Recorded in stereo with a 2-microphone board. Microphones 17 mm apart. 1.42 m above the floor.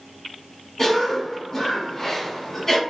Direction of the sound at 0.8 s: 20° left (ahead or behind).